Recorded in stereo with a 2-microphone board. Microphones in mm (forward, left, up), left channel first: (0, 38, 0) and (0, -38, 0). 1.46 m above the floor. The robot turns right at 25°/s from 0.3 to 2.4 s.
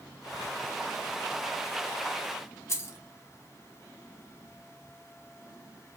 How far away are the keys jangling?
About 0.9 m.